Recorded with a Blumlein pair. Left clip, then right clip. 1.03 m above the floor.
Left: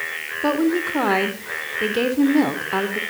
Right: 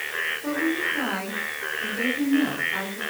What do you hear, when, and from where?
0.4 s a woman speaking: 55° left, 3.5 m